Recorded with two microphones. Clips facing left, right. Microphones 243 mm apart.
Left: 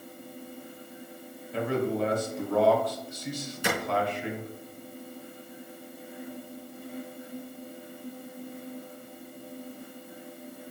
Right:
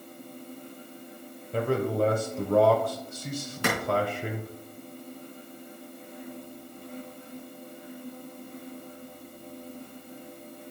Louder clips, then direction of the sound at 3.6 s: Right 1 dB; 70° right (ahead or behind).